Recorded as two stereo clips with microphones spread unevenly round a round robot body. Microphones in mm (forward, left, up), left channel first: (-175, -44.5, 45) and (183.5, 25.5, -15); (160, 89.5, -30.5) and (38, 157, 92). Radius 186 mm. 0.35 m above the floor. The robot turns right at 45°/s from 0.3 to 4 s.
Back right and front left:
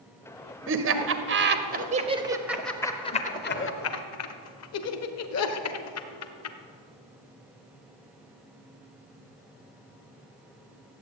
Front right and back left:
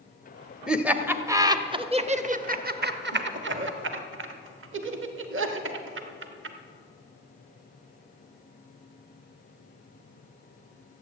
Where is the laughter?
Straight ahead, 1.3 m; by 6.6 s 155° left, 1.3 m.